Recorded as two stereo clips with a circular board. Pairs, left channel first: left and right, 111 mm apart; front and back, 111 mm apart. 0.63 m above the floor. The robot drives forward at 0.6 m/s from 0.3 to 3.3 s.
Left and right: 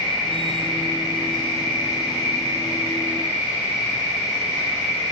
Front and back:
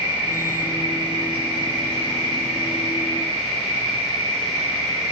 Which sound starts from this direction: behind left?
An insect, at 0.0 s.